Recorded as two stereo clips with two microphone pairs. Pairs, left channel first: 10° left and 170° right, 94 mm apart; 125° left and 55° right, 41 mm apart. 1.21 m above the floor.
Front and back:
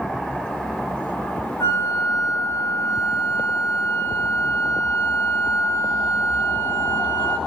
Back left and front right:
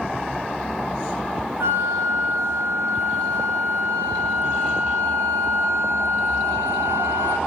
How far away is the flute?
About 0.5 m.